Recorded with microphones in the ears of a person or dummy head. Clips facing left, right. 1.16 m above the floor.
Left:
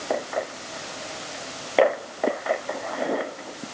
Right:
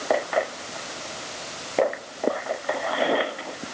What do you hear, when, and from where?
Only background noise.